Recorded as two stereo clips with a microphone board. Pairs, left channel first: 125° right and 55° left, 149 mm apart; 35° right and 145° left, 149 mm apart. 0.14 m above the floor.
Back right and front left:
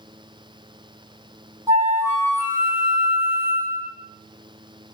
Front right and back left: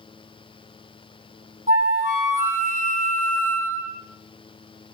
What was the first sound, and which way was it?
A flute, 125° left.